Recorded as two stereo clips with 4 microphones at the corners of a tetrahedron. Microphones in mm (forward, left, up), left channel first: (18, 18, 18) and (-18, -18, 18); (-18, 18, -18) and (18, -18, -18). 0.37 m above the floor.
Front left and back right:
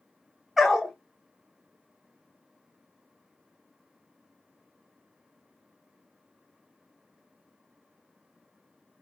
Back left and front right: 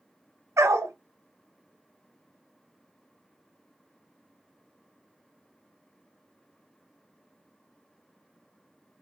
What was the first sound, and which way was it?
A dog barking, 50° right.